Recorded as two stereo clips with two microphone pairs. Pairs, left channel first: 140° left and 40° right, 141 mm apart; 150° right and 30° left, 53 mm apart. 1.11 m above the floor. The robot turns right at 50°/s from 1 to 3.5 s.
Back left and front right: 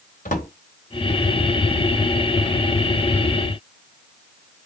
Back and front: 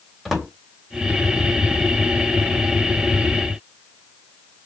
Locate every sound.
0.2 s a drawer: 115° left, 3 m